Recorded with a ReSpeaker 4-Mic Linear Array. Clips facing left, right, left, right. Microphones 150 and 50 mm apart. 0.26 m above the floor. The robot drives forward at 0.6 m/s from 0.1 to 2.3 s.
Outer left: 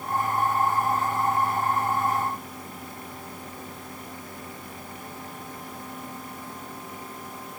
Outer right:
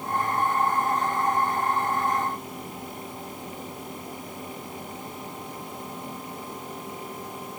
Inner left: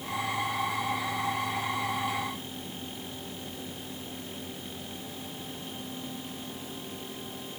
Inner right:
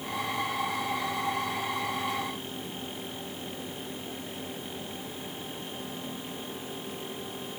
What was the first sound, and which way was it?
Only background noise.